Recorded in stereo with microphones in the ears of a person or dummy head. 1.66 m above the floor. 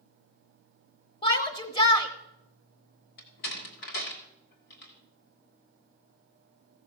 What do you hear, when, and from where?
1.2 s a shout: 30° left (ahead or behind), 1.0 m
3.2 s a door slam: 60° left (ahead or behind), 1.8 m